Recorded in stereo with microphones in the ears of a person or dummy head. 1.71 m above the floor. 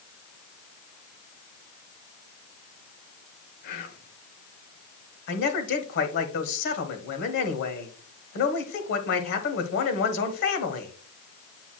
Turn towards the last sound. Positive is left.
turn(degrees=65)  # may be behind; listen again after turning